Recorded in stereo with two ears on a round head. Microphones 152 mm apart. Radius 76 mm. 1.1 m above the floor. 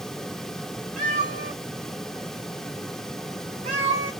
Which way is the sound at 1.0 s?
50° right (ahead or behind).